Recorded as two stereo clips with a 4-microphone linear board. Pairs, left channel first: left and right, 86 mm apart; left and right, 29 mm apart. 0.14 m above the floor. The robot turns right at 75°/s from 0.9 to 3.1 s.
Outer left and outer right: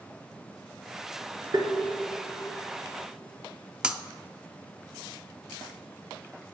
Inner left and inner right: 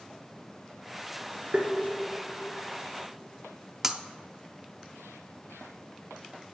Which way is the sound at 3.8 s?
10° right (ahead or behind).